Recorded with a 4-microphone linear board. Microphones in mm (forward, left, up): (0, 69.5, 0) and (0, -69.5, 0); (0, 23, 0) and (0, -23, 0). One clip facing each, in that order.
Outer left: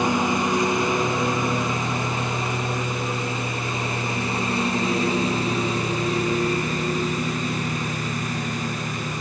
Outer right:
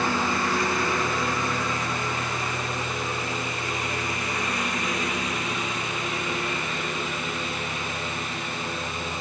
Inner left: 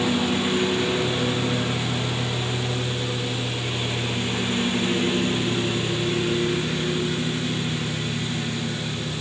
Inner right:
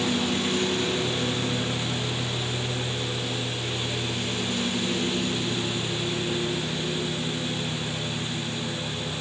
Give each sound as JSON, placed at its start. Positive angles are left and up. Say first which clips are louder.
{"t": 0.0, "sound": "a lawn mower", "louder": "outer left 4 dB, inner left 3 dB", "side_deg": 20}